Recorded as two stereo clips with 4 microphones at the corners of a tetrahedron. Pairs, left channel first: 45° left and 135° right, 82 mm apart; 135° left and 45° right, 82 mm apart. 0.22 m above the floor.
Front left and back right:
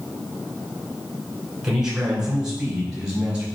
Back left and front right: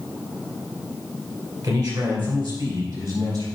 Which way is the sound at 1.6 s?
55° right.